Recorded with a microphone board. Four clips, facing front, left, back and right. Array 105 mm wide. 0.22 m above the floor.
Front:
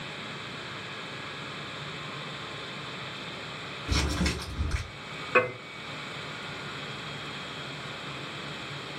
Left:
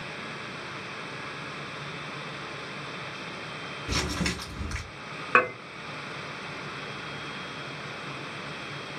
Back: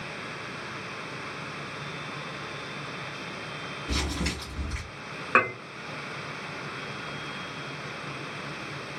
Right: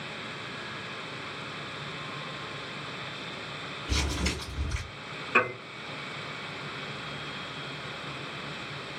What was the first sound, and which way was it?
Crumpling, 85° left.